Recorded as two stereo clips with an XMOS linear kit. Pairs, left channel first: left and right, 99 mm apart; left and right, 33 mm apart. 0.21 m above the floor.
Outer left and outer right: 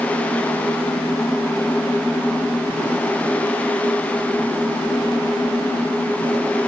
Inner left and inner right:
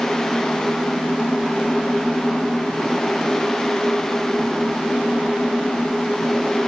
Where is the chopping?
No chopping in this recording.